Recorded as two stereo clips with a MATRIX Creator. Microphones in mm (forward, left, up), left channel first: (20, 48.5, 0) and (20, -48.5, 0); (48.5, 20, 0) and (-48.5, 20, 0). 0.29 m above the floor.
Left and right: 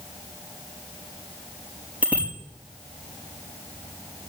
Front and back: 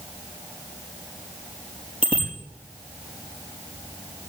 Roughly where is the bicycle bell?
Ahead.